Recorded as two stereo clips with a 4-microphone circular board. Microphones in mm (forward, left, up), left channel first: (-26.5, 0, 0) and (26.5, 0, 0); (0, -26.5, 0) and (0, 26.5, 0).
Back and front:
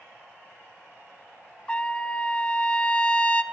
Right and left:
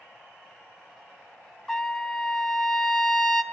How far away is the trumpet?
About 0.6 m.